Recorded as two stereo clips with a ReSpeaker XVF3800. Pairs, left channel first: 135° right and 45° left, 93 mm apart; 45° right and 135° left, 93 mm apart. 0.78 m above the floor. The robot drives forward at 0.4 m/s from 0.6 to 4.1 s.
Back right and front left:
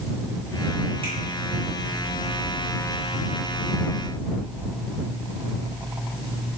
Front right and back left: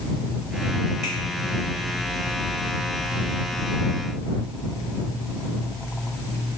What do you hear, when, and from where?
1.0 s a finger snap: 45° left, 3 m